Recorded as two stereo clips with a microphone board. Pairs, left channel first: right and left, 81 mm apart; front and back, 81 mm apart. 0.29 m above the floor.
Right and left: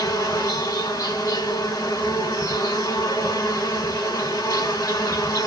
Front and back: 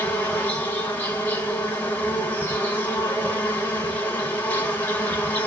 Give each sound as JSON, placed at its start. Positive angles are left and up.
{"t": 0.0, "sound": "an insect", "azimuth_deg": -60, "distance_m": 1.6}